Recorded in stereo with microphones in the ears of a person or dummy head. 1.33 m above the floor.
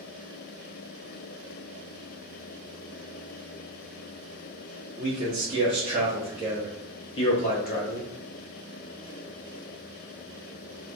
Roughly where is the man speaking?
Right.